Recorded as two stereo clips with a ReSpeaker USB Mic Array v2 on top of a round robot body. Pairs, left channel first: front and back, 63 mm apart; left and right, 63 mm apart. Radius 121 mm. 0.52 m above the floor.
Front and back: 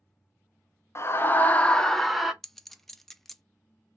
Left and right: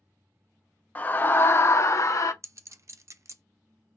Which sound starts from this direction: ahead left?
A scream, at 0.9 s.